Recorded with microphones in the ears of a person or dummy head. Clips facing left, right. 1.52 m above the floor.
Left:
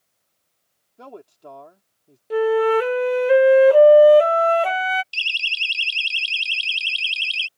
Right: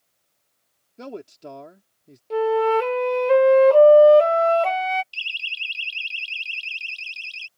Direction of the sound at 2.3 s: 15° left (ahead or behind).